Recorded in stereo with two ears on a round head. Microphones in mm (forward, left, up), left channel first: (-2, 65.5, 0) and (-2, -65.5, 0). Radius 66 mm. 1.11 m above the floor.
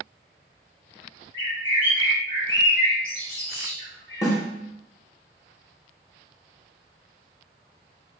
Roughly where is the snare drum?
Left.